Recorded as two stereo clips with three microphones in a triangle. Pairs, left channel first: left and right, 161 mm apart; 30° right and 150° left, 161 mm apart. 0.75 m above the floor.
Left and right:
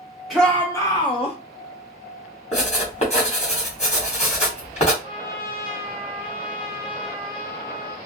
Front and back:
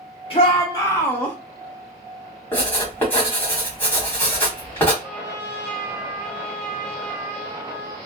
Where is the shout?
Straight ahead, 0.8 m; by 1.4 s 50° left, 0.9 m.